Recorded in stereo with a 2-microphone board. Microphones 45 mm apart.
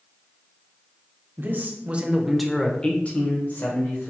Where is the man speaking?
45° right (ahead or behind), 0.9 m; by 4.1 s 55° left (ahead or behind), 1.3 m.